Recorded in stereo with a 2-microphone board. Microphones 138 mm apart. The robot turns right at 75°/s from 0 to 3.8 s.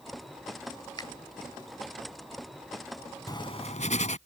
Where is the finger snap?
30° left (ahead or behind); by 1.1 s 35° left (ahead or behind).